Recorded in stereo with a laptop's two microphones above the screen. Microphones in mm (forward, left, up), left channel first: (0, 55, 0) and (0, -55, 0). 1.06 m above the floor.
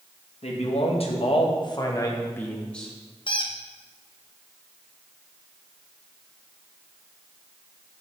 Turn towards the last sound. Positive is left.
turn(degrees=50)  # may be behind; listen again after turning